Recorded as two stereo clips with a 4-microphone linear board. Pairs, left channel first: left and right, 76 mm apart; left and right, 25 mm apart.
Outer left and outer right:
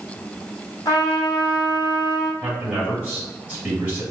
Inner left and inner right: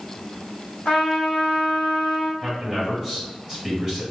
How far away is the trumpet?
About 1.2 m.